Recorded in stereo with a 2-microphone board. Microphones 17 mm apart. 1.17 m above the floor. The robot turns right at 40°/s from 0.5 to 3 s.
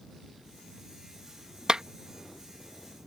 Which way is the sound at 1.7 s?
45° right (ahead or behind).